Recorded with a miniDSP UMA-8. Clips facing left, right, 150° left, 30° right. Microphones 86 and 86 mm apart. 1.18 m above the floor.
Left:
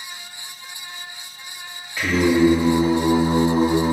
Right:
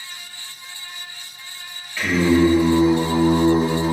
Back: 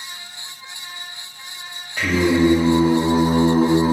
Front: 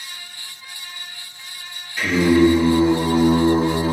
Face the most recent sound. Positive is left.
turn(degrees=150)